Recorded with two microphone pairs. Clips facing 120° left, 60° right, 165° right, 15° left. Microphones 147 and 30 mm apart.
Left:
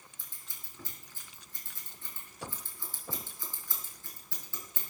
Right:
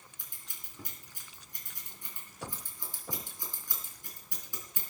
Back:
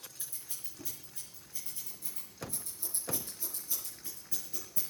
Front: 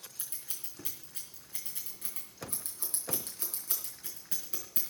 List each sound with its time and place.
0.2 s scissors: 15° left, 4.5 m